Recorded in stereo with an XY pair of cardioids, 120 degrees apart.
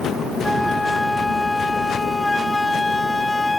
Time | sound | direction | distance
0.4 | a flute | 10° left | ?